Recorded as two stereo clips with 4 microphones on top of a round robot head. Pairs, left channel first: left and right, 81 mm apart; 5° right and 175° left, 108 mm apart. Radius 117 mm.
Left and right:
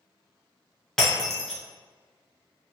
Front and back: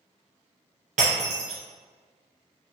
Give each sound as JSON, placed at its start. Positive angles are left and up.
{"t": 1.0, "sound": "breaking glass", "azimuth_deg": 175, "distance_m": 0.7}